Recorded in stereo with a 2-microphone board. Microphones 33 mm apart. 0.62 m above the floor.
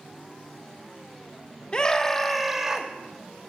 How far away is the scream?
About 0.8 m.